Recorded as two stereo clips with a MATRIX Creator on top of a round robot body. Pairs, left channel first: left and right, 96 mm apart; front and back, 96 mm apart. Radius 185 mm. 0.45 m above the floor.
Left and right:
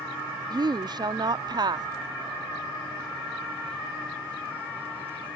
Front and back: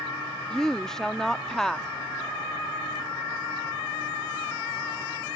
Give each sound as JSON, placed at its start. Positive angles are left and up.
{"t": 0.5, "sound": "a woman speaking", "azimuth_deg": -85}